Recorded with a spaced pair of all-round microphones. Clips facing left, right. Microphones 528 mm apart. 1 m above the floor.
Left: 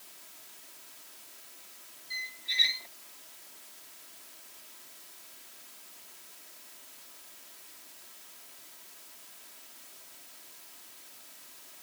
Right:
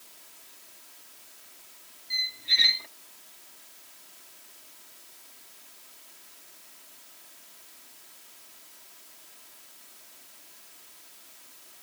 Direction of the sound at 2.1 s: 70° right (ahead or behind).